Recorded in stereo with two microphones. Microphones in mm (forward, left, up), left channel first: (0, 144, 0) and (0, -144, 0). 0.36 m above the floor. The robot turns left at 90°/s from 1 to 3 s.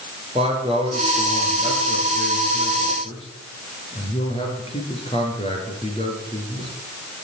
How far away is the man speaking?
About 5 m.